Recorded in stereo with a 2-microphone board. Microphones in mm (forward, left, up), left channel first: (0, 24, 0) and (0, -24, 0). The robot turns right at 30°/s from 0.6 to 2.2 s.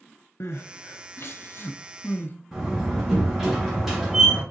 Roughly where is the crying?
Left.